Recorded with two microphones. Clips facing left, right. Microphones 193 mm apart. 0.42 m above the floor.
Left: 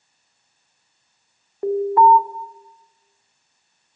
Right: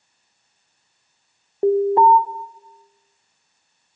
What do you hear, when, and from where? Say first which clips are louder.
1.6 s an alarm: right 1 dB; 25° right (ahead or behind), 0.7 m